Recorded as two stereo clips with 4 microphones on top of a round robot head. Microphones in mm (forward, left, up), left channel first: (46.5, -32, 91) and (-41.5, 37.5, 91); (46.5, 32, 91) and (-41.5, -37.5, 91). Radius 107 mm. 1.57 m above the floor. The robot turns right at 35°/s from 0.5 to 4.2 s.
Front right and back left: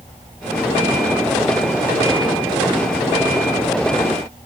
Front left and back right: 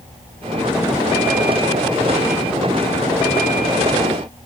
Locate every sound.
Only background noise.